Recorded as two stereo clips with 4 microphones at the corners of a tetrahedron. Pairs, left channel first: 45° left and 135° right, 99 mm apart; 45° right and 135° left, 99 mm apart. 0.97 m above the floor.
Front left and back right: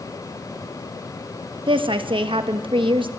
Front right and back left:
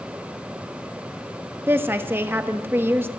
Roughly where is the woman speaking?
Behind.